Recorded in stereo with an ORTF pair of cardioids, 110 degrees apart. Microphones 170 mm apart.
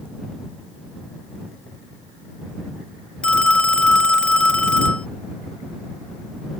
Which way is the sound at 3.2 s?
5° left.